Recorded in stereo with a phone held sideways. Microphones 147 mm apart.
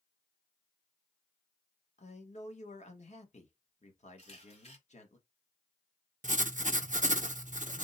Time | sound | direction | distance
2.0 | a man speaking | 50° left (ahead or behind) | 1.1 m
4.2 | a camera shutter | 50° left (ahead or behind) | 1.6 m
6.2 | writing | 60° right (ahead or behind) | 0.5 m